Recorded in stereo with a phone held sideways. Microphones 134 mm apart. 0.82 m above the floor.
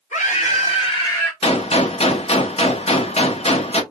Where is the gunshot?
50° left (ahead or behind), 0.6 m.